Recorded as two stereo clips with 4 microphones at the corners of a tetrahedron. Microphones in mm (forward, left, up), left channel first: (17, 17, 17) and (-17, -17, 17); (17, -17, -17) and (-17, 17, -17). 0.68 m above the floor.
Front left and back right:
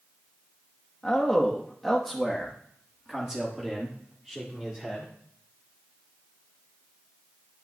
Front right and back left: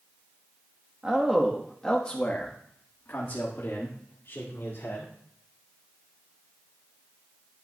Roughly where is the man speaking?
Left.